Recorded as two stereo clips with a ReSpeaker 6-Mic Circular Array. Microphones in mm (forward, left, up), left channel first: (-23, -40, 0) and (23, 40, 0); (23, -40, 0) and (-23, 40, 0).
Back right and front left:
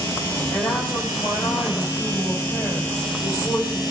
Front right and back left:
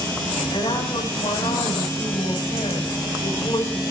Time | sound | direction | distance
0.5 | a woman speaking | 75° right | 9.5 m